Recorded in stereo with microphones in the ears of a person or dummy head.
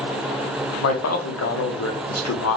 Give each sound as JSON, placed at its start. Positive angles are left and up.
{"t": 0.8, "sound": "a man speaking", "side_deg": 80, "distance_m": 1.0}